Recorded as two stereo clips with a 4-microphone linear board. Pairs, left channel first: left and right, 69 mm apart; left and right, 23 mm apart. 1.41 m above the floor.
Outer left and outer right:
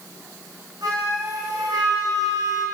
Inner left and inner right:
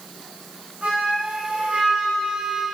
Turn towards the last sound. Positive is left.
turn(degrees=-70)  # may be behind; listen again after turning